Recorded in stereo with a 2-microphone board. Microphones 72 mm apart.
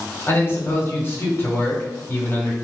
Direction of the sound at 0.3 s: 35° left (ahead or behind).